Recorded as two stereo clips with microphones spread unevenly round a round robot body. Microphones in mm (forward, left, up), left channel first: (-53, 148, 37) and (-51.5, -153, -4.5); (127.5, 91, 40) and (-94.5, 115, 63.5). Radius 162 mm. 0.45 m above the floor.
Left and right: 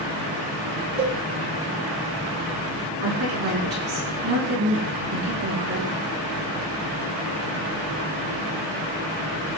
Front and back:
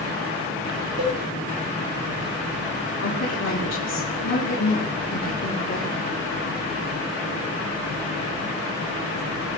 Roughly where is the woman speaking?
Ahead right.